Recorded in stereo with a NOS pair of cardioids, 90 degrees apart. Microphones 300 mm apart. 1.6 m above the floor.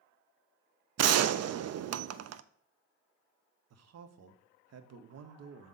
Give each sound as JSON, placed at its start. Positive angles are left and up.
{"t": 1.0, "sound": "a gunshot", "azimuth_deg": -55, "distance_m": 0.5}
{"t": 3.7, "sound": "a man speaking", "azimuth_deg": -55, "distance_m": 1.0}